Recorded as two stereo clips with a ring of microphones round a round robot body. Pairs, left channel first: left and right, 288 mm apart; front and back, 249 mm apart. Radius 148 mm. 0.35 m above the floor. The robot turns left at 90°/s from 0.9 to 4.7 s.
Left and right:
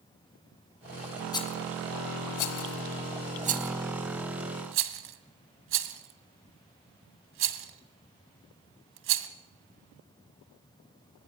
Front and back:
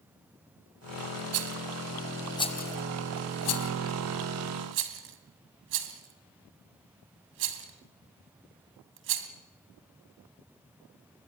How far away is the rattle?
About 1.8 m.